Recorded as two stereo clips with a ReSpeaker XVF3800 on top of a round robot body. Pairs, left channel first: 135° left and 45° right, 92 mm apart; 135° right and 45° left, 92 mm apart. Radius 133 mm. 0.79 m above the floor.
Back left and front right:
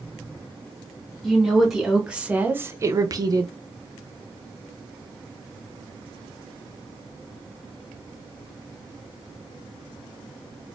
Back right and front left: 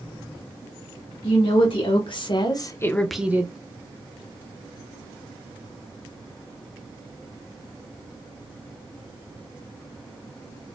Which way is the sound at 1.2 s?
135° right.